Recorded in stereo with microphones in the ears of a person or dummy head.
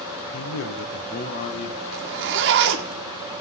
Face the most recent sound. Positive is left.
turn(degrees=-55)  # may be behind; listen again after turning